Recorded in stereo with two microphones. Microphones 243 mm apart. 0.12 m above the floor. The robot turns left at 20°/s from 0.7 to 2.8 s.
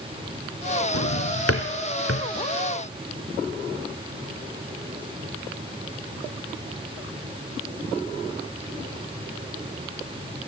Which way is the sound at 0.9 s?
70° left (ahead or behind).